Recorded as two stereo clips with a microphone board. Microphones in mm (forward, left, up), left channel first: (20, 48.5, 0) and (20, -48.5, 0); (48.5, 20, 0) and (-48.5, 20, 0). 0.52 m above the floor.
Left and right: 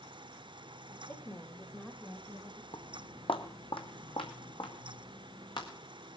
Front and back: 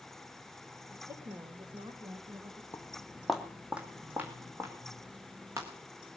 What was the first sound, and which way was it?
A woman speaking, 140° left.